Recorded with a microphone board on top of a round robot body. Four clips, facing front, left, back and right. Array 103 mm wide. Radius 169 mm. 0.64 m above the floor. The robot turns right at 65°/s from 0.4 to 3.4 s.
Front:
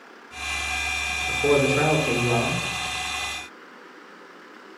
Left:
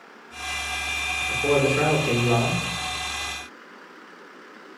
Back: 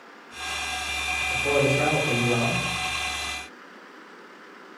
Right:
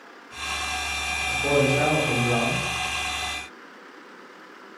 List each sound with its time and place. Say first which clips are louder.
1.3 s a man speaking: left 1 dB, front 3 dB; straight ahead, 1.6 m; by 2.6 s 90° left, 1.6 m